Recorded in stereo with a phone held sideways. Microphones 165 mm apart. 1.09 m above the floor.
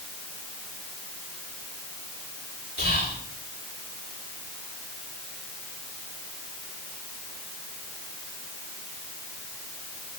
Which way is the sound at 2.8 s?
65° left (ahead or behind).